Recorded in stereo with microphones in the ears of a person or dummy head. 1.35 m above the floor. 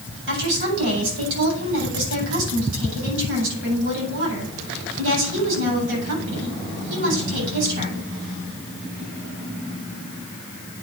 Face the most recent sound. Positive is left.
turn(degrees=-70)  # may be behind; listen again after turning